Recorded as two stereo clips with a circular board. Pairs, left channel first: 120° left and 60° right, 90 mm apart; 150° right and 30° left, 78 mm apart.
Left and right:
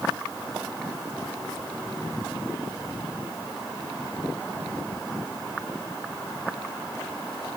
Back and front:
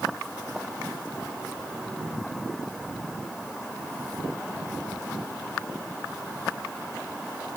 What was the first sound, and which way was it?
Only background noise.